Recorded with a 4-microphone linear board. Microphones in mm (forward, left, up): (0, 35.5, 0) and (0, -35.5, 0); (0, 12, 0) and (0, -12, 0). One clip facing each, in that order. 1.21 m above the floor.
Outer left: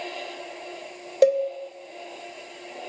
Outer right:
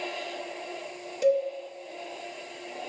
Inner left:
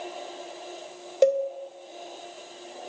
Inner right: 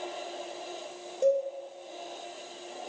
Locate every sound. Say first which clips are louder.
1.2 s a cowbell: outer left 5 dB, inner left 4 dB; 65° left (ahead or behind), 0.7 m